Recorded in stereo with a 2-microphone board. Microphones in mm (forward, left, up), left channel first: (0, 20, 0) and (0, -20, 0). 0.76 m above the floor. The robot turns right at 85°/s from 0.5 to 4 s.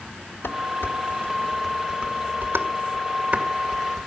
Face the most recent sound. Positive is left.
turn(degrees=20)  # may be behind; listen again after turning